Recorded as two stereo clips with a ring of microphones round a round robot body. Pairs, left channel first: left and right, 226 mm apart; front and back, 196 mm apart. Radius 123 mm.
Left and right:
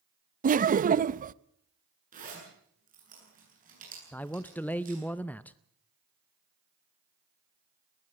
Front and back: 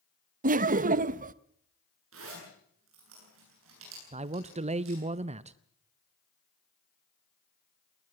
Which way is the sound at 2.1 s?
145° right.